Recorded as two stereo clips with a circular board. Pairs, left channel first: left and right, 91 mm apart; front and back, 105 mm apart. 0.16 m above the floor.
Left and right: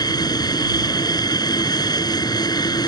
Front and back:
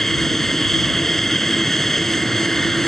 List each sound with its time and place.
0.0 s an aircraft: 85° left